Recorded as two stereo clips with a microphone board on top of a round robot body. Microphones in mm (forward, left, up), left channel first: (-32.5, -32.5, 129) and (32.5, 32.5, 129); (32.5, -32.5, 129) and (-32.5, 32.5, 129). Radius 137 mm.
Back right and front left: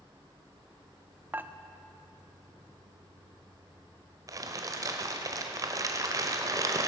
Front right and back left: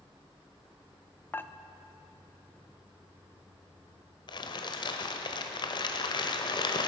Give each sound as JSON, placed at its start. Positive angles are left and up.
{"t": 1.3, "sound": "dishes clattering", "azimuth_deg": -5, "distance_m": 0.6}
{"t": 4.3, "sound": "crumpling", "azimuth_deg": -10, "distance_m": 0.9}